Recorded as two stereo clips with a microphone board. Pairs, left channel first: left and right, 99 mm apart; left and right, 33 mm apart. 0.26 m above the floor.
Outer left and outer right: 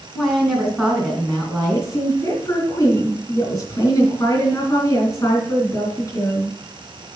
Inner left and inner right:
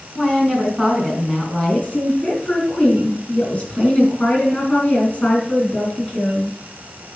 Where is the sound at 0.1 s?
Centre (ahead or behind), 3 m.